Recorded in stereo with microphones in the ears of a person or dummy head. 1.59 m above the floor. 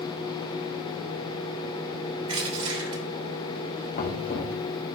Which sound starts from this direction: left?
Knocking, at 4.0 s.